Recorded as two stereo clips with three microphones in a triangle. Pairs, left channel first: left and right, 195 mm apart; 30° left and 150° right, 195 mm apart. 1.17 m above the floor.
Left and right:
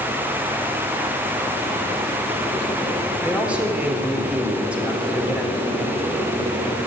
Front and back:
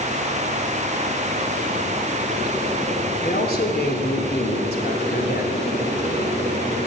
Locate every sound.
3.2 s a man speaking: 5° right, 3.5 m